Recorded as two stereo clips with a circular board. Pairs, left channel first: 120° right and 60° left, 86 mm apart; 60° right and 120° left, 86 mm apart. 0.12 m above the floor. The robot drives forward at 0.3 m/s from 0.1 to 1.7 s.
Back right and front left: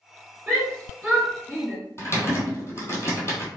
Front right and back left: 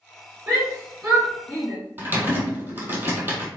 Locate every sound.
0.5 s a shout: 140° left, 1.5 m; by 1.8 s 155° left, 1.6 m
2.0 s typing on a keyboard: 175° right, 1.1 m